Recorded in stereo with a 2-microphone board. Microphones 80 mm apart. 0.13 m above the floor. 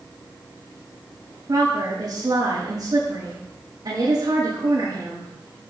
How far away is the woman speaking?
About 6.5 m.